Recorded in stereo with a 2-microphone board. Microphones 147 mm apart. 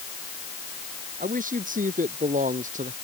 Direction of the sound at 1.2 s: 65° right (ahead or behind).